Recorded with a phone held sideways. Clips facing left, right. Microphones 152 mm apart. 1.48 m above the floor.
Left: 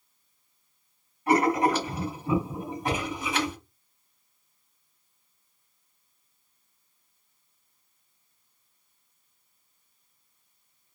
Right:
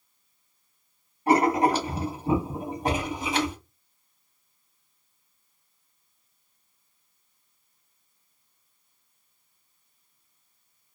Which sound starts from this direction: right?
Writing, at 1.3 s.